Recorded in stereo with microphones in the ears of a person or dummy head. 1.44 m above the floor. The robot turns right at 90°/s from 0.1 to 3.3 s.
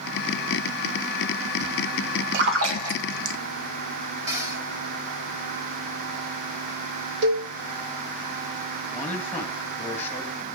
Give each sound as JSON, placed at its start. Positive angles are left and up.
{"t": 2.3, "sound": "a splash", "side_deg": -55, "distance_m": 1.9}
{"t": 4.3, "sound": "a cupboard door", "side_deg": -15, "distance_m": 3.0}
{"t": 7.2, "sound": "a cowbell", "side_deg": -60, "distance_m": 2.5}
{"t": 8.9, "sound": "a man speaking", "side_deg": 15, "distance_m": 2.5}